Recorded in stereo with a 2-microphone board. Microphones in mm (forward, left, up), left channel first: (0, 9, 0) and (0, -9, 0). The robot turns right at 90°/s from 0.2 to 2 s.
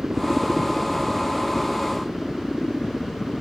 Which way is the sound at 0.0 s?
35° right.